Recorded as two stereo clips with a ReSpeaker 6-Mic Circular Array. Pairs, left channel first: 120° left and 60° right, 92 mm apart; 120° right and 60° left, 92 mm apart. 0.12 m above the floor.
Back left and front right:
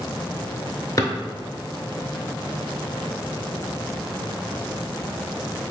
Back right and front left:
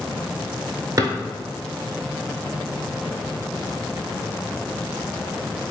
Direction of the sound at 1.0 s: 90° left.